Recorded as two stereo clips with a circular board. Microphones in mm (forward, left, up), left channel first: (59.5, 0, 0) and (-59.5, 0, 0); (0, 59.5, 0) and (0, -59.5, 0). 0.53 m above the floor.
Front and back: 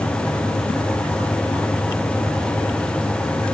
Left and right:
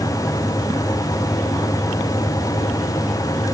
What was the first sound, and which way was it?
Only background noise.